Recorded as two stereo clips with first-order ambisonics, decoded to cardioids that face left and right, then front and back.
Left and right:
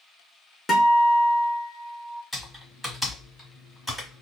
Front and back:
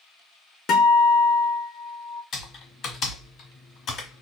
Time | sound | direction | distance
0.7 | a guitar | 25° left | 0.9 m
2.3 | typing on a keyboard | 10° left | 1.3 m